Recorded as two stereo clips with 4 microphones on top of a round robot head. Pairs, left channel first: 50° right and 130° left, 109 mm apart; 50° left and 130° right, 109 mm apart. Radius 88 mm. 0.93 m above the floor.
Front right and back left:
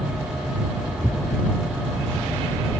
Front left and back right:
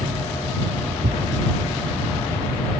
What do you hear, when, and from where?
1.0 s a thud: 135° right